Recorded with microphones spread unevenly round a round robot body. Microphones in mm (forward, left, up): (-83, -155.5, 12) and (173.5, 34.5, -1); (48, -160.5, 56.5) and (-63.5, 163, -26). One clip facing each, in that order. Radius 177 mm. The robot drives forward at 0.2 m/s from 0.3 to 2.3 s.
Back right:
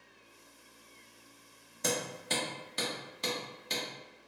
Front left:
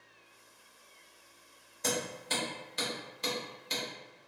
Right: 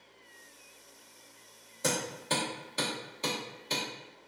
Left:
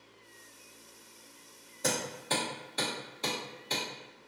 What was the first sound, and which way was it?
Hammering, 160° right.